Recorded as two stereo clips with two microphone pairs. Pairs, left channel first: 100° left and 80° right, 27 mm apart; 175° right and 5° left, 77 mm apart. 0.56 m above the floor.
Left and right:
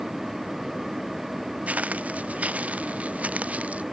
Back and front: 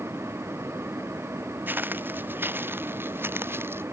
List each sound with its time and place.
1.7 s footsteps: 60° right; by 3.8 s 55° right